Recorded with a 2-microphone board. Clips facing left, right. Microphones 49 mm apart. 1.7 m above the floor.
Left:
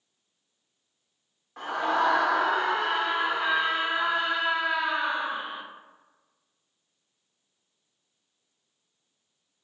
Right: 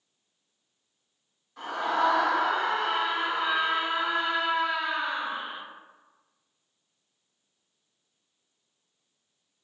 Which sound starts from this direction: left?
A scream, at 1.6 s.